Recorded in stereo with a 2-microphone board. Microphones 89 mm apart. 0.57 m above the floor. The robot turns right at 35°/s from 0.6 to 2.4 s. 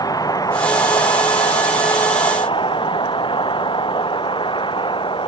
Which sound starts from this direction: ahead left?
A vehicle, at 0.0 s.